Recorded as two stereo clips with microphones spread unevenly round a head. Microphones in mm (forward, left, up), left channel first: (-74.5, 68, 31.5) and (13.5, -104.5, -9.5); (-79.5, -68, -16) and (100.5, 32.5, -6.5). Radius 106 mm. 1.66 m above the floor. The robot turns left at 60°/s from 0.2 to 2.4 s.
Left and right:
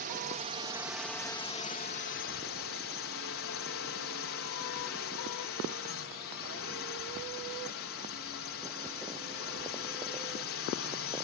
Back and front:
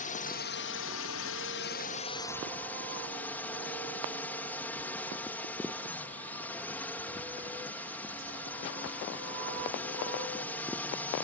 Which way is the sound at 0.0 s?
100° right.